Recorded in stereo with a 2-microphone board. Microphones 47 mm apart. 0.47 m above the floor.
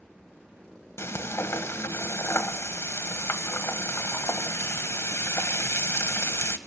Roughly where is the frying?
Left.